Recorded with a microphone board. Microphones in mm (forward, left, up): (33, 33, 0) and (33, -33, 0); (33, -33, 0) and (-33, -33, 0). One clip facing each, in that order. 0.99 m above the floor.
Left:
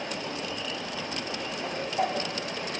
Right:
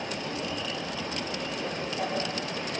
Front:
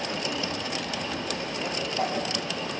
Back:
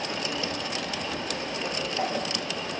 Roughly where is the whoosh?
Left.